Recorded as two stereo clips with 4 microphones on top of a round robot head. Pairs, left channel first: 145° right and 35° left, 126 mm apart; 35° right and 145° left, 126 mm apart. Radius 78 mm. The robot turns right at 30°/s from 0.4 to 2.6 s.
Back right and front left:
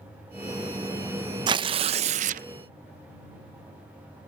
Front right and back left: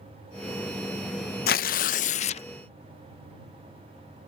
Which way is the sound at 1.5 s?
20° right.